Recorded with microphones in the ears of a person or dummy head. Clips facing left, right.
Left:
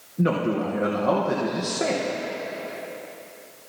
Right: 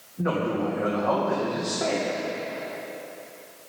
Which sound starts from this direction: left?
A man speaking, at 0.2 s.